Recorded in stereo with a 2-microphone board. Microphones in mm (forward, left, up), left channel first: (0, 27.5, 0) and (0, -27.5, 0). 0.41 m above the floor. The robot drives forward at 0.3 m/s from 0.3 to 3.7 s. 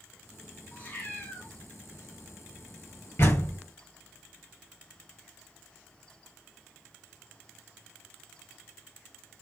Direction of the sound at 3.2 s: 50° left (ahead or behind).